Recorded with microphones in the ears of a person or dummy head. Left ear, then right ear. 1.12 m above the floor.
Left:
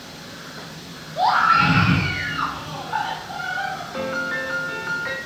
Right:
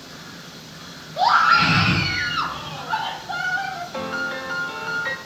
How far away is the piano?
About 0.7 m.